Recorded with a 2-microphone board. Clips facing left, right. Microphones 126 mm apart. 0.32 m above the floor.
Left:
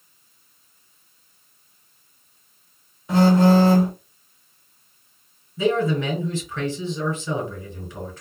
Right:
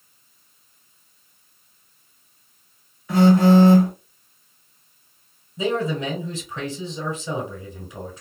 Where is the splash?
No splash in this recording.